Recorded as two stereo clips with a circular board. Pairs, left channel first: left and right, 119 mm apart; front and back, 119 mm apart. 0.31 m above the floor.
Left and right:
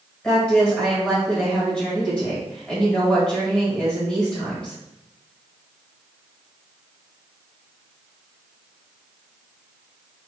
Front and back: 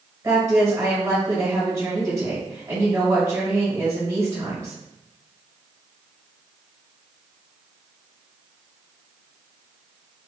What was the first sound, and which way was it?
A woman speaking, 160° left.